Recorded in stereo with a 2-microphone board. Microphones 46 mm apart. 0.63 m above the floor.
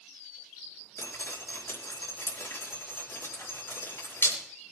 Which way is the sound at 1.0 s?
65° left (ahead or behind).